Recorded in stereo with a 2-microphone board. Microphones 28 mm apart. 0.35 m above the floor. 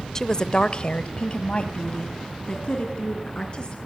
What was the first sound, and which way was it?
A woman speaking, 20° left (ahead or behind).